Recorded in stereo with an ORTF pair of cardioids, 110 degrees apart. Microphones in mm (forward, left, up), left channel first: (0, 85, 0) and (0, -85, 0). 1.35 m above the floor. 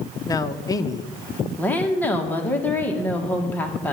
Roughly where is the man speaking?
Ahead.